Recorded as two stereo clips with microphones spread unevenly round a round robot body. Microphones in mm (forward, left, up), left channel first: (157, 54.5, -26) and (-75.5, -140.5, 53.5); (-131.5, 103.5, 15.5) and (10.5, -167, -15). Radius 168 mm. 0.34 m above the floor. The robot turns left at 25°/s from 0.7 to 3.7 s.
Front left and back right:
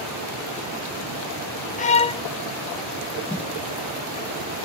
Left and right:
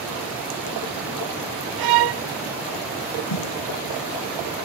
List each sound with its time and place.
1.8 s a violin: 30° right; by 2.2 s 40° right
3.3 s a snare drum: 130° left; by 3.5 s 125° left